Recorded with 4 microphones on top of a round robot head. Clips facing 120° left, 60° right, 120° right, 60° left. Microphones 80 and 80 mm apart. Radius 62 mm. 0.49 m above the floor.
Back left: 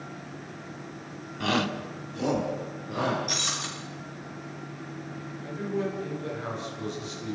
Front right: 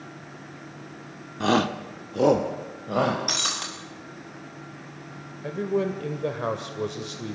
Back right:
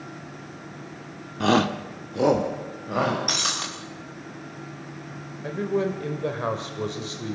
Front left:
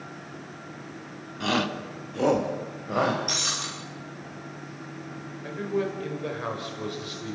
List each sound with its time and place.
1.4 s a shout: 100° right, 1.4 m; by 3.2 s 30° right, 3 m
3.3 s breaking glass: 85° right, 6 m
5.4 s a man speaking: 65° right, 2.5 m